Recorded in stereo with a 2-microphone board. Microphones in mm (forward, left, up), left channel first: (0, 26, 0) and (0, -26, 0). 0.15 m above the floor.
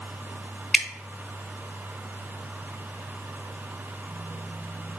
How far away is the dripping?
About 0.6 m.